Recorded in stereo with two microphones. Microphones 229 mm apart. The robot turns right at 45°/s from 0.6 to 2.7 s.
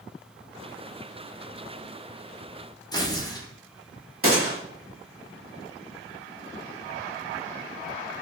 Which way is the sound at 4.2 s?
65° right (ahead or behind).